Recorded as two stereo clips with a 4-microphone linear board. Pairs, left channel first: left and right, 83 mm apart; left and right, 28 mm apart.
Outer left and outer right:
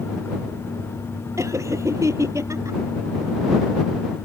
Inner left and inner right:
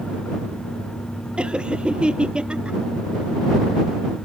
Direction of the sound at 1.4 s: 35° right (ahead or behind).